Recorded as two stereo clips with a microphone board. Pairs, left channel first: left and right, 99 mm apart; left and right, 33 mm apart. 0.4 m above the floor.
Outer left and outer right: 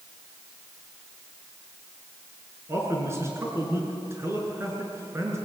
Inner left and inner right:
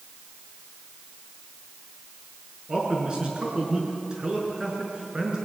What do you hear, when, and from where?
2.7 s a man speaking: 25° right (ahead or behind), 6 m